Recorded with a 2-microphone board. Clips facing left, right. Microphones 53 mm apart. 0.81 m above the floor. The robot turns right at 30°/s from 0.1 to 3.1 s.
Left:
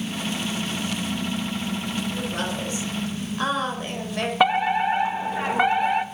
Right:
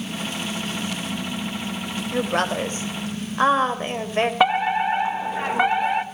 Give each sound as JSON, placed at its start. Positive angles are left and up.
{"t": 2.1, "sound": "a woman speaking", "side_deg": -60, "distance_m": 4.0}
{"t": 4.4, "sound": "a fire alarm", "side_deg": -5, "distance_m": 1.4}